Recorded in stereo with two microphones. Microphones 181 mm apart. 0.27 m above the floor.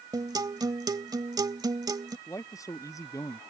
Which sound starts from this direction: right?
A guitar, at 0.1 s.